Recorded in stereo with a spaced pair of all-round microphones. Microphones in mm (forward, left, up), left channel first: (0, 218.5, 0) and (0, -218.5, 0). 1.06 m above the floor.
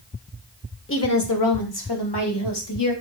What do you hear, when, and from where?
0.9 s a woman speaking: 30° left (ahead or behind), 0.6 m; by 2.9 s 70° left (ahead or behind), 1.5 m